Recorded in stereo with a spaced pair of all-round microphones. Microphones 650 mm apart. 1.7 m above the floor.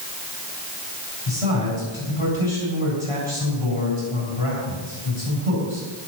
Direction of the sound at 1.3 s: 50° left (ahead or behind).